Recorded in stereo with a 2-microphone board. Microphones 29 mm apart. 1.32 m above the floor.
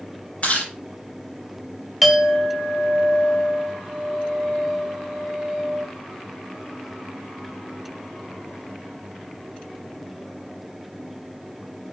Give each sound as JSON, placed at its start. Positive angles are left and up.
{"t": 0.4, "sound": "chewing", "side_deg": 40, "distance_m": 5.0}
{"t": 2.0, "sound": "a clink", "side_deg": 0, "distance_m": 1.3}